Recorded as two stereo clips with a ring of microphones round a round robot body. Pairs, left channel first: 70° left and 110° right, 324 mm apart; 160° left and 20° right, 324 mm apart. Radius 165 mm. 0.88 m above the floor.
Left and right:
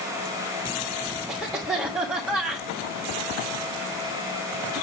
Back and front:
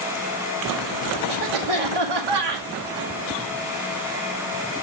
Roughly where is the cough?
Ahead right.